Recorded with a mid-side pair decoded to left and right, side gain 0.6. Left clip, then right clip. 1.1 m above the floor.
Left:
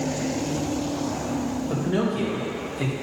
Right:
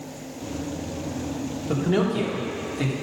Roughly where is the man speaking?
Ahead right.